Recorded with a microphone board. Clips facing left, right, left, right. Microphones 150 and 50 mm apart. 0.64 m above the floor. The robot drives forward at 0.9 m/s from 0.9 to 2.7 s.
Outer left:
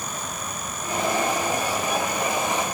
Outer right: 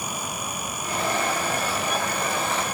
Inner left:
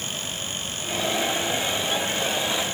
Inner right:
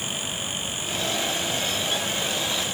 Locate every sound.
Only background noise.